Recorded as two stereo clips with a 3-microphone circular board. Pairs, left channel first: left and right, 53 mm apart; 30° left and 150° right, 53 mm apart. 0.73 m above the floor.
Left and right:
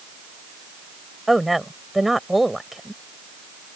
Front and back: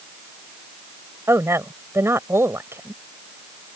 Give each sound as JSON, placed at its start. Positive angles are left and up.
{"t": 1.3, "sound": "a woman speaking", "azimuth_deg": 180}